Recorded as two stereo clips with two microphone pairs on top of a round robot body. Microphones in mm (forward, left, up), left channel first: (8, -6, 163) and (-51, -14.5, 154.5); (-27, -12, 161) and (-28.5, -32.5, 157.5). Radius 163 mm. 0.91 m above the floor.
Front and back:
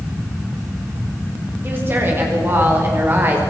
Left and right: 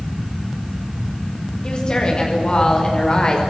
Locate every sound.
1.6 s a woman speaking: 135° left, 5 m